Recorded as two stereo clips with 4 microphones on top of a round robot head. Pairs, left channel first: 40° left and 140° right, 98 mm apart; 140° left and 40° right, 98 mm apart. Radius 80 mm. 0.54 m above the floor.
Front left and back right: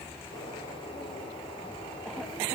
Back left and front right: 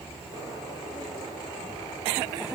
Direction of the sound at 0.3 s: 85° left.